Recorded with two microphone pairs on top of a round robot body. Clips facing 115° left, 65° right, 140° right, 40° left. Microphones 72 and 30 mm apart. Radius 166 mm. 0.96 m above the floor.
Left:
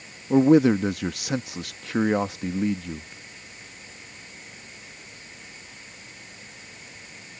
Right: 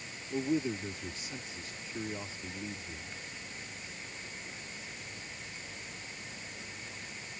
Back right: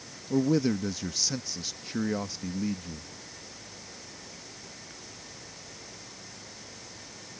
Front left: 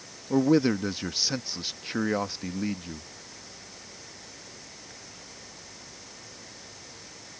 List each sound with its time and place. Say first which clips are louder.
0.3 s a man speaking: left 16 dB, front left 3 dB; 100° left